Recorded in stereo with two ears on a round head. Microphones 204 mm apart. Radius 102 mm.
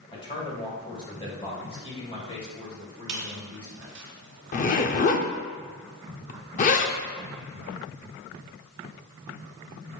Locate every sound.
0.1 s a man speaking: 25° left (ahead or behind), 2.5 m
3.1 s a squeak: 55° right (ahead or behind), 1.7 m
4.5 s a zipper: 35° left (ahead or behind), 0.6 m